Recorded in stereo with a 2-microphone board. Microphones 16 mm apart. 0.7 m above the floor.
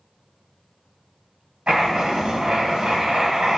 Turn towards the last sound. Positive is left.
turn(degrees=-85)